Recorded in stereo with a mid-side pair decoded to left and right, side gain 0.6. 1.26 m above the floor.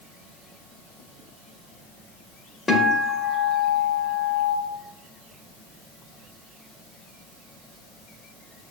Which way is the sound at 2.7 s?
20° left.